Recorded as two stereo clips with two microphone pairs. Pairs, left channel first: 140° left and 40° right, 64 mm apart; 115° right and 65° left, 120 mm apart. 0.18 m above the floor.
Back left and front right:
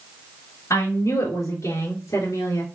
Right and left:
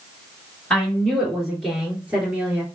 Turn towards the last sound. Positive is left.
turn(degrees=140)